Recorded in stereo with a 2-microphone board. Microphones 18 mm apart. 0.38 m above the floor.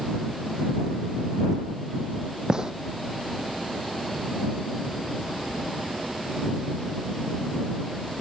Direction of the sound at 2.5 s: 45° right (ahead or behind).